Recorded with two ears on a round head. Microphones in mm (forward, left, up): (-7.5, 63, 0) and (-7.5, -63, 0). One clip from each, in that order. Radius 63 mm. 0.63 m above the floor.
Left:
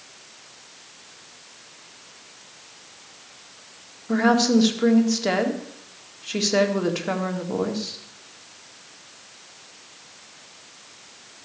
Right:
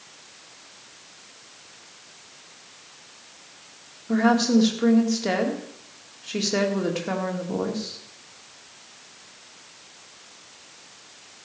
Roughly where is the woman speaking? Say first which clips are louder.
Left 1 dB; centre.